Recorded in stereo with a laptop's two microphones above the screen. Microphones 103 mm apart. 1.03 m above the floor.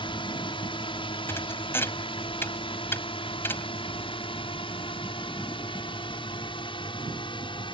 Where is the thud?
25° left (ahead or behind).